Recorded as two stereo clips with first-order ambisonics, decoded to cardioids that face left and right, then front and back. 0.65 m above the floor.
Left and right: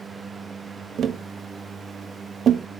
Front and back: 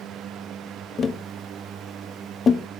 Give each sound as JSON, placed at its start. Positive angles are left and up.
{"t": 1.0, "sound": "tapping", "azimuth_deg": -55, "distance_m": 0.6}